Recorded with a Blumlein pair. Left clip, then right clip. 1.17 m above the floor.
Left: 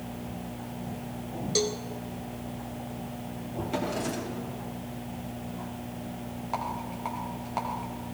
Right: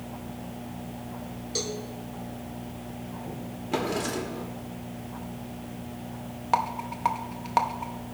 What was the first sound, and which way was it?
A cowbell, 15° left.